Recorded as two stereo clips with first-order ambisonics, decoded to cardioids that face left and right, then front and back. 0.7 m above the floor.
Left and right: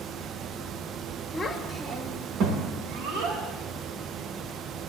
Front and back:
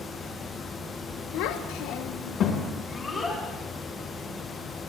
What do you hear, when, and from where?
1.3 s a child speaking: 15° left, 1.2 m; by 3.4 s 75° right, 2.5 m